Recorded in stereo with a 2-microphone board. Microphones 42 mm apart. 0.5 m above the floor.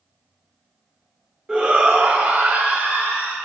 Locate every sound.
1.5 s a shout: 20° right (ahead or behind), 1.0 m; by 3.4 s 60° right (ahead or behind), 2.5 m